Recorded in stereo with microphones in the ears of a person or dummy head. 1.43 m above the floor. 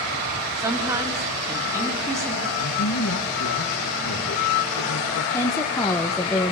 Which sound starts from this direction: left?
A man speaking, at 2.6 s.